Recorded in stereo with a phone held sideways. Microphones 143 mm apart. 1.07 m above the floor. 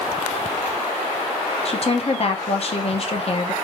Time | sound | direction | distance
1.6 | a woman speaking | 50° left (ahead or behind) | 0.7 m